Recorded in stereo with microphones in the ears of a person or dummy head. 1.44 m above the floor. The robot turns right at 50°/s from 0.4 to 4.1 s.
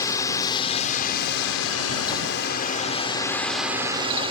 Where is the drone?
25° left; by 4.3 s 150° right.